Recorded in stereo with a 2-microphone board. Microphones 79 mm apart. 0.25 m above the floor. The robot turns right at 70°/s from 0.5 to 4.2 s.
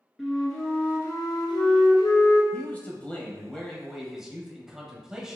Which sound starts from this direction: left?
A man speaking, at 2.5 s.